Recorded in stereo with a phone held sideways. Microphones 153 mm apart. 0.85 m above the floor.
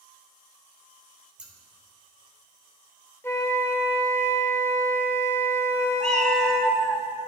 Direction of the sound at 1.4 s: 5° right (ahead or behind).